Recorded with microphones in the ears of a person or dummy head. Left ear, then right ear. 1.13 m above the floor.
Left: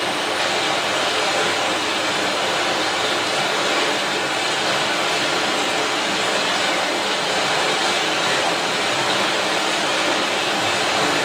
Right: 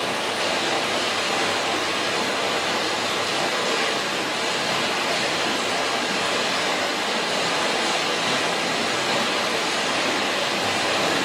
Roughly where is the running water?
Left.